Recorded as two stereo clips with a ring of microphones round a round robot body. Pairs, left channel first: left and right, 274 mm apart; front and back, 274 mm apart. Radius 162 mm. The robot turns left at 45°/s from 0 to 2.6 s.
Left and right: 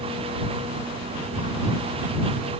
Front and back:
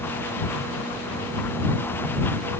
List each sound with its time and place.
Only background noise.